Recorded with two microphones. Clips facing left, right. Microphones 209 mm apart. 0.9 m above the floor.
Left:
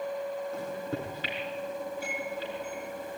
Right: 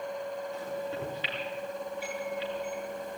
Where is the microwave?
45° left (ahead or behind), 7.5 m.